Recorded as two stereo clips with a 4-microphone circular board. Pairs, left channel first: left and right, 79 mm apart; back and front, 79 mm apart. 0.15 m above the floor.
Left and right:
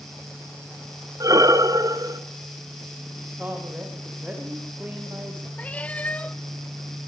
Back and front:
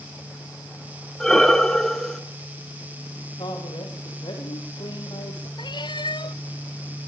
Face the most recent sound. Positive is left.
turn(degrees=160)